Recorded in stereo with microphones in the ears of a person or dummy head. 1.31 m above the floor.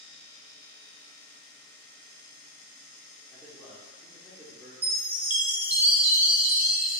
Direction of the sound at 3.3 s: 5° right (ahead or behind).